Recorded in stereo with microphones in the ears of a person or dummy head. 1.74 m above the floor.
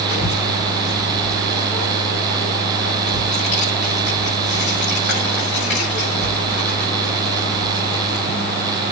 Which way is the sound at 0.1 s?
70° left (ahead or behind).